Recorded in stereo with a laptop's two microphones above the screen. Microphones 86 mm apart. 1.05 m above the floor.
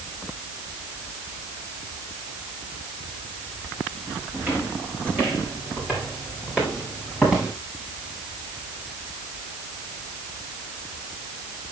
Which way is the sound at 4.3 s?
25° right (ahead or behind).